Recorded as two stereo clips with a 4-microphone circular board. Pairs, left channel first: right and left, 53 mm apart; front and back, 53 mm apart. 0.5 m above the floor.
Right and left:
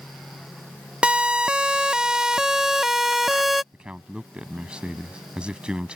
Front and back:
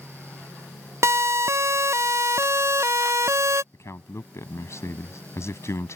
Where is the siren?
160° left; by 3.6 s straight behind.